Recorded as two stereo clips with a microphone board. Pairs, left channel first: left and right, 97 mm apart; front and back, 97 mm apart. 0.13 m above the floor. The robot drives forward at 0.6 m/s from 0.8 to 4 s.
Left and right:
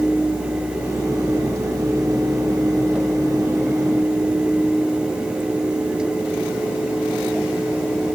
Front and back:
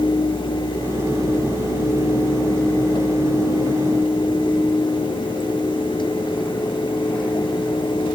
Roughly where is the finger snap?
No finger snap in this recording.